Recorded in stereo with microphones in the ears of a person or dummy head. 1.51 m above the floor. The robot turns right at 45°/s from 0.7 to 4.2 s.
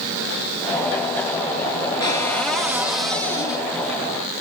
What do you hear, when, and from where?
2.0 s a cupboard door: 150° left, 1.6 m; by 3.7 s 135° right, 1.6 m